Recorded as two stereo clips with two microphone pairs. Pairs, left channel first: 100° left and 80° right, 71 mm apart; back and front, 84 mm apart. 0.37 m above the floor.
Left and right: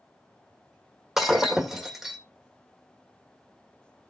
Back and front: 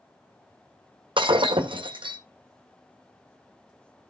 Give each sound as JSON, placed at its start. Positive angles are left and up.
{"t": 1.2, "sound": "breaking glass", "azimuth_deg": 5, "distance_m": 1.8}